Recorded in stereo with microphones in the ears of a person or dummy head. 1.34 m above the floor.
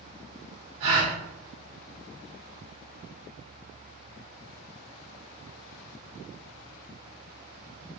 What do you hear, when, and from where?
0.8 s a gasp: 70° right (ahead or behind), 1.9 m